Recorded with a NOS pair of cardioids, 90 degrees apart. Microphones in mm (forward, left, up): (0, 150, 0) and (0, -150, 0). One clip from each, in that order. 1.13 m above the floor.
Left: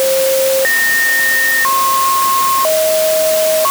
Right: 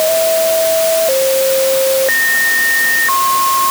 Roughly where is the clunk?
I don't hear a clunk.